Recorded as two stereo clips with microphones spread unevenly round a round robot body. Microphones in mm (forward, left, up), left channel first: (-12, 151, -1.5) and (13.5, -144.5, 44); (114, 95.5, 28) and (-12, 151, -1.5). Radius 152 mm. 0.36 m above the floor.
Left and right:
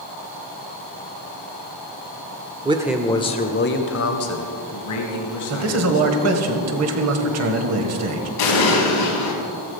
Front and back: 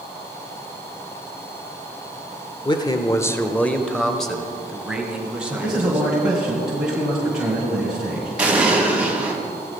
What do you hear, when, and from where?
2.6 s a man speaking: 25° right, 0.8 m; by 6.1 s 75° left, 3 m
5.5 s a man speaking: 125° right, 1.8 m
8.4 s an explosion: 80° left, 3 m